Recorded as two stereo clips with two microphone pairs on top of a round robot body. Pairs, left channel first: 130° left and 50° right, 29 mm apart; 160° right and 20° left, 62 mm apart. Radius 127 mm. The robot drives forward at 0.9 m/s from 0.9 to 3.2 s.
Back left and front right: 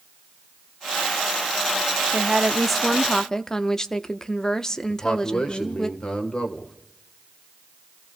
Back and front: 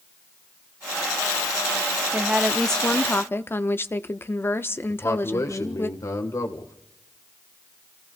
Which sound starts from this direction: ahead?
A woman speaking, at 2.1 s.